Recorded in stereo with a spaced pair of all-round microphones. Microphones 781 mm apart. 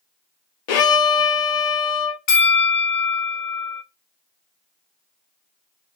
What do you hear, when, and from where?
0.7 s a violin: 60° left (ahead or behind), 0.6 m
2.3 s a bell: 50° left (ahead or behind), 0.9 m